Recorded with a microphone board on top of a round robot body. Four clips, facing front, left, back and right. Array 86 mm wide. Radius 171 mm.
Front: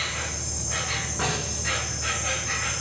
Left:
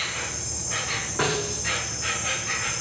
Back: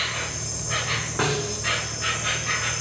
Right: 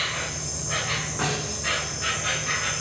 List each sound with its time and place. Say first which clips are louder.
0.0 s an insect: right 2 dB, back 2 dB; 150° right, 3.5 m
1.2 s a snare drum: left 5 dB, back 5 dB; 170° left, 8.5 m